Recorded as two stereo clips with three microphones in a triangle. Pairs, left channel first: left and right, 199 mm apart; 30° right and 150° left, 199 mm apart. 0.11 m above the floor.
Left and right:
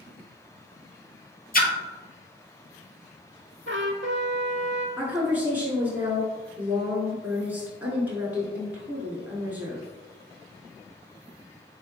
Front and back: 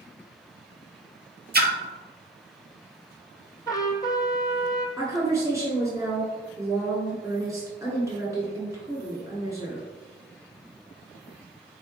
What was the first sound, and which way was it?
A splash, 125° left.